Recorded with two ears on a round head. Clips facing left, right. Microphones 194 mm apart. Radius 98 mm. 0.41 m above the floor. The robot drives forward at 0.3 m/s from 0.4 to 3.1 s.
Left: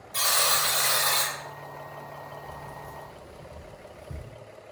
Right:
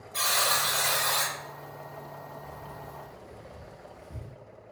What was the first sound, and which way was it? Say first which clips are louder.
A buzzer: left 1 dB; 30° left (ahead or behind).